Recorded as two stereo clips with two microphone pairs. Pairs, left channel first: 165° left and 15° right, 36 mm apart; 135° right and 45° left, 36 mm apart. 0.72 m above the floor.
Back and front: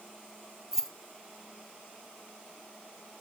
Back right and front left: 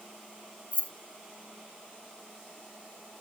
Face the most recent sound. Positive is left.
turn(degrees=-90)